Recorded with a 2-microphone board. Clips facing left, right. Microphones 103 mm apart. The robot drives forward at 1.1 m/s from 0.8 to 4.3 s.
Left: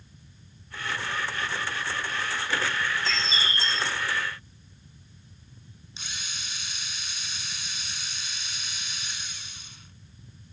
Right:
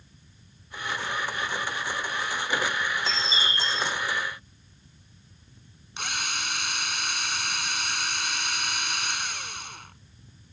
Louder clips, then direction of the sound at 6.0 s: Right 9 dB; 70° right (ahead or behind).